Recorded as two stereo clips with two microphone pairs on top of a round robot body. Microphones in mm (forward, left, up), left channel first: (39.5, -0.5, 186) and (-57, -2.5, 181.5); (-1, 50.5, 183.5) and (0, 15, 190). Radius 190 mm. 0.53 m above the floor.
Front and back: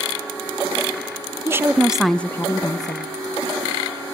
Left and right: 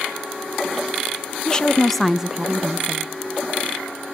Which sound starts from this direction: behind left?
A woman speaking, at 1.4 s.